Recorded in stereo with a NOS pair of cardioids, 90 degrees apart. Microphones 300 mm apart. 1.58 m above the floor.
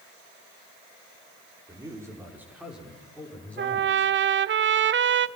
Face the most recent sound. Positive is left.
turn(degrees=-40)